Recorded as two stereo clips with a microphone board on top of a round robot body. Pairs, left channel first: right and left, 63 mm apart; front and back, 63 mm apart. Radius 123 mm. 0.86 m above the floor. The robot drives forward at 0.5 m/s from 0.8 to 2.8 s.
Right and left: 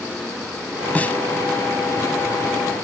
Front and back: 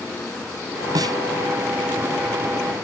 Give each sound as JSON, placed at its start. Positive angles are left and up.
{"t": 0.9, "sound": "a snare drum", "azimuth_deg": -160}